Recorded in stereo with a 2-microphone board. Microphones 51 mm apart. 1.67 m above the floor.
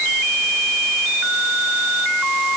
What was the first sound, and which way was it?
Only background noise.